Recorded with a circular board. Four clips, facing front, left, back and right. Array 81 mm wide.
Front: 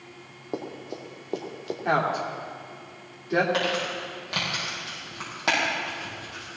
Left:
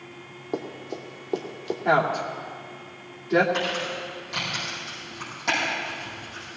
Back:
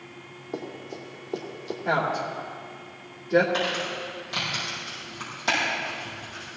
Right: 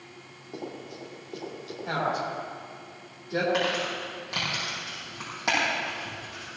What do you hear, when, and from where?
0.5 s running footsteps: 50° left, 3 m; by 1.8 s 55° left, 2 m
1.9 s a woman speaking: 50° left, 2.5 m
3.5 s crumpling: 20° right, 6.5 m